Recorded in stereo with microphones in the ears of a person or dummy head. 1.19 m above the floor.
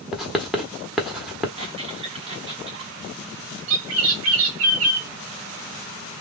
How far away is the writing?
About 0.9 m.